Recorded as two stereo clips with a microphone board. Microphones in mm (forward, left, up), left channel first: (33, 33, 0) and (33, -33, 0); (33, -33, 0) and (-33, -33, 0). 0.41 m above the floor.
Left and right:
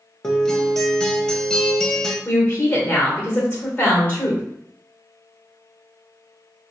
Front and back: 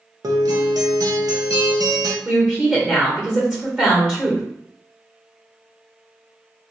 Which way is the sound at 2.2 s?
115° left.